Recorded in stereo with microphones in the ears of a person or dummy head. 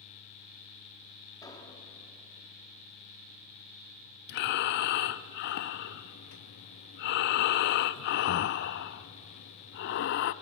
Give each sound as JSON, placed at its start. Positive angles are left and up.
{"t": 1.4, "sound": "an explosion", "side_deg": 20, "distance_m": 3.0}
{"t": 4.3, "sound": "breathing", "side_deg": 50, "distance_m": 0.7}